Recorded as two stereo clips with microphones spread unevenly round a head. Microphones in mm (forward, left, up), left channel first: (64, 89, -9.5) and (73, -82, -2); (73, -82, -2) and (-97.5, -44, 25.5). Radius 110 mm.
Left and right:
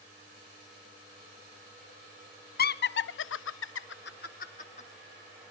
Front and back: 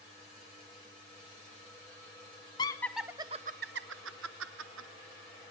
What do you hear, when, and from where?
2.6 s laughter: 60° left, 0.8 m; by 4.9 s 155° left, 1.5 m